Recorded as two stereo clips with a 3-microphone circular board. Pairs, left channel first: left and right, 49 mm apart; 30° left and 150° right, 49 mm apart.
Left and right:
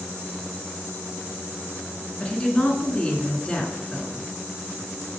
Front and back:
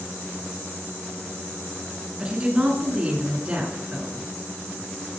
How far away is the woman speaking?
About 2 m.